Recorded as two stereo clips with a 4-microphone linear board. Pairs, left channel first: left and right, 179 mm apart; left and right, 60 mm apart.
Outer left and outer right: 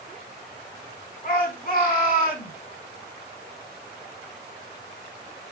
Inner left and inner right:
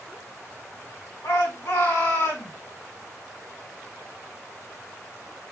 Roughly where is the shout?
Left.